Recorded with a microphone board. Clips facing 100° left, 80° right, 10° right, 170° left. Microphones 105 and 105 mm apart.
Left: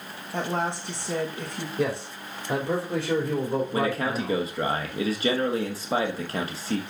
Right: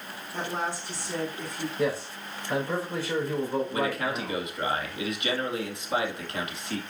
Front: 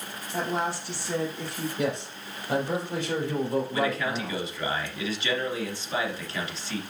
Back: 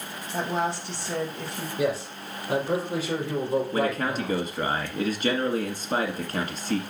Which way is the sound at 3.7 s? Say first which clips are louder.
Left 3 dB, back 2 dB; 145° left.